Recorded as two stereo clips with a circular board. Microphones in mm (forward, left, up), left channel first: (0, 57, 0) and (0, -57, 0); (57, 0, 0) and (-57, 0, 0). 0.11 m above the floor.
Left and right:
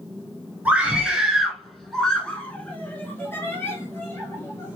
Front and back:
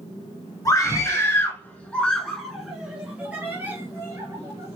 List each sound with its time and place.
0.7 s a scream: 20° right, 1.6 m; by 4.8 s 135° left, 2.0 m